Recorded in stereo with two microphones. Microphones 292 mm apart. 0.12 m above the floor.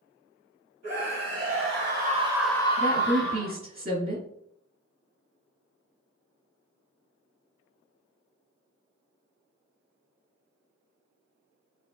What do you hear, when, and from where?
0.8 s a scream: 60° right (ahead or behind), 3 m; by 3.5 s 55° left (ahead or behind), 2.0 m
2.8 s a woman speaking: 30° right (ahead or behind), 2.0 m